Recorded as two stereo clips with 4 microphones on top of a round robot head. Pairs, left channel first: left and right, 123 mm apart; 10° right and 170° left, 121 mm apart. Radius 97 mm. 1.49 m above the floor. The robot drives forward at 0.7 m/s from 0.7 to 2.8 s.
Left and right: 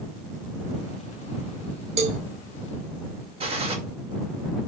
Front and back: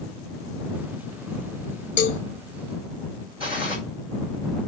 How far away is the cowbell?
About 0.8 m.